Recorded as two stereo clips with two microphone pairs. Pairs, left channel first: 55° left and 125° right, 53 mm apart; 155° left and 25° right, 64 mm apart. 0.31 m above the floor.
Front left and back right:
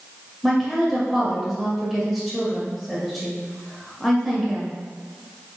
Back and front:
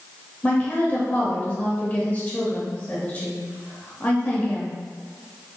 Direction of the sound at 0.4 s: 140° left.